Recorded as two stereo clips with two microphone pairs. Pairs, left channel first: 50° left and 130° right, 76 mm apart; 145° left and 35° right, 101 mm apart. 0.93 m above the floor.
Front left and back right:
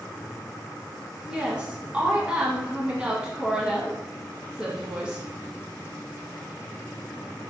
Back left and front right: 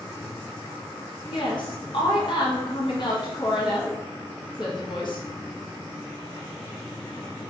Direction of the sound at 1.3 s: 155° left.